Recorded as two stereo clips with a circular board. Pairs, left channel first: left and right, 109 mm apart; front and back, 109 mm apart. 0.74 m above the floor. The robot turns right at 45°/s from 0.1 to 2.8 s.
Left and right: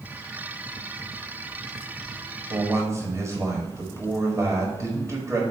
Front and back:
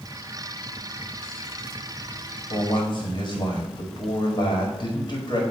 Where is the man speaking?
50° right, 1.6 m; by 5.4 s 35° right, 1.6 m.